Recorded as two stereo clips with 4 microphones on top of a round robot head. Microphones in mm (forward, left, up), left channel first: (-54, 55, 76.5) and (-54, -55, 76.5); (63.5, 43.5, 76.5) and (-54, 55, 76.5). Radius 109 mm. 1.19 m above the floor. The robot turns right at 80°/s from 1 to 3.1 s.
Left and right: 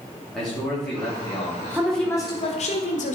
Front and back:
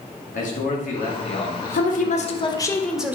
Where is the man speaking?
5° left, 2.5 m; by 2.7 s 145° left, 2.5 m.